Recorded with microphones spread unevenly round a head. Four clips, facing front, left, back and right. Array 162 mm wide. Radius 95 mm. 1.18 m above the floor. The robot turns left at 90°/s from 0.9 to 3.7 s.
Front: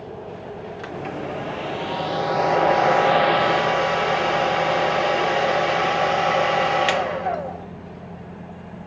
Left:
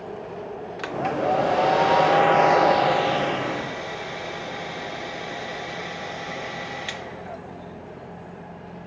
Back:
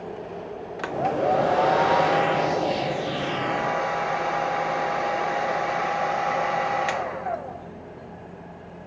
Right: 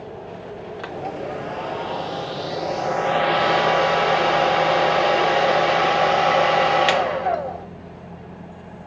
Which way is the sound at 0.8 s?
165° right.